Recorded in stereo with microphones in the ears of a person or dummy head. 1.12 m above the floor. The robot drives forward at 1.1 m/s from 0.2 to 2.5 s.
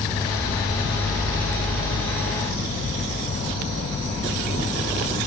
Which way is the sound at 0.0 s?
20° left (ahead or behind).